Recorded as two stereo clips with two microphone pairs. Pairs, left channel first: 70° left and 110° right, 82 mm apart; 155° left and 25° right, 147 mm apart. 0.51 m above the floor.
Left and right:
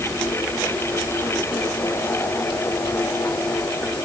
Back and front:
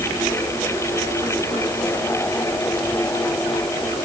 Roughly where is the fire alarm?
I don't hear a fire alarm.